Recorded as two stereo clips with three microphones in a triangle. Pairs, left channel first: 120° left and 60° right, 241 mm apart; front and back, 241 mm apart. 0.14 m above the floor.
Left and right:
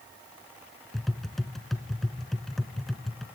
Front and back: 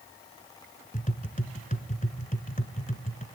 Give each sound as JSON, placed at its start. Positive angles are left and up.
{"t": 0.9, "sound": "tapping", "azimuth_deg": 30, "distance_m": 0.7}